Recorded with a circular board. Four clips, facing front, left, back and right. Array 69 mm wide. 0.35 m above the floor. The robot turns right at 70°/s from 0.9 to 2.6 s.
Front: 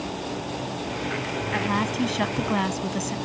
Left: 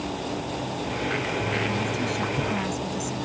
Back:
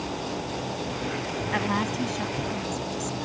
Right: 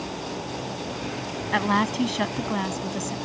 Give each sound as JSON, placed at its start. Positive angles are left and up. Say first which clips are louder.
{"t": 1.5, "sound": "a woman speaking", "louder": "right 4 dB, front 2 dB", "azimuth_deg": -95}